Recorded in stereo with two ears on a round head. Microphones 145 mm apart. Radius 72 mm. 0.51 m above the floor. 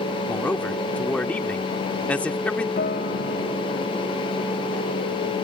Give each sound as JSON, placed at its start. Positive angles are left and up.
{"t": 0.3, "sound": "a man speaking", "side_deg": 10}
{"t": 2.8, "sound": "a guitar", "side_deg": 55}